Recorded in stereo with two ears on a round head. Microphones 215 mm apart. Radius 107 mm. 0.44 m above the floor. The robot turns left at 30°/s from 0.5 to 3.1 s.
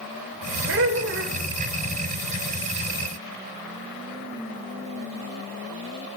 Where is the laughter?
55° right (ahead or behind), 1.4 m; by 1.4 s 45° right (ahead or behind), 1.4 m.